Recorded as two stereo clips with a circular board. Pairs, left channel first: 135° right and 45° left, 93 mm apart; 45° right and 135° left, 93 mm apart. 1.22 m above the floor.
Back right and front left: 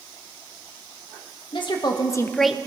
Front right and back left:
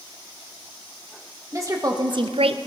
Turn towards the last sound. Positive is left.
turn(degrees=120)